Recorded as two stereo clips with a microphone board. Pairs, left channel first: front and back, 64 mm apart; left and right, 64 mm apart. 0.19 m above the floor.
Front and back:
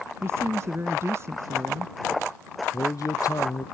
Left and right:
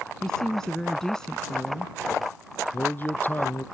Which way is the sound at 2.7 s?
30° left.